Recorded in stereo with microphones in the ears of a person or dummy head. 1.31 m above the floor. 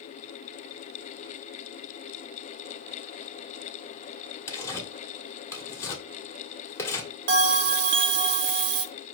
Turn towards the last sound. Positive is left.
turn(degrees=-50)  # may be behind; listen again after turning